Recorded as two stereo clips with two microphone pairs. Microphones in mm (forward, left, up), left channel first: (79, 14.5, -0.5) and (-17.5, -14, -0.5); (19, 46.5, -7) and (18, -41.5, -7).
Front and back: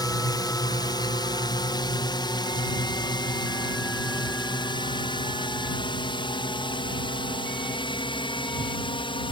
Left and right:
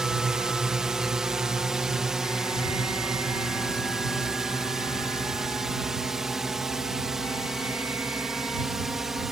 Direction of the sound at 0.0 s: 10° right.